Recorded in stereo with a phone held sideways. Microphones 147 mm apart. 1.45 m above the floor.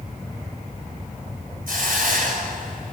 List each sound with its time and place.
1.7 s a hiss: 75° right (ahead or behind), 5.5 m